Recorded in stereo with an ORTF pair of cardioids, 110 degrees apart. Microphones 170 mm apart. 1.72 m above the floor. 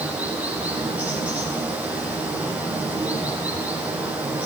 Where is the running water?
10° right, 9.5 m.